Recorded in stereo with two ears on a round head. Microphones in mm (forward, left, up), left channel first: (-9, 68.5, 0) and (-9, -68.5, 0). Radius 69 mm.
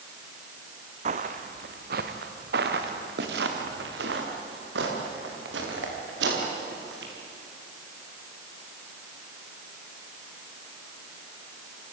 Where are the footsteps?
45° right (ahead or behind), 1.9 m; by 7.1 s 85° right, 9 m.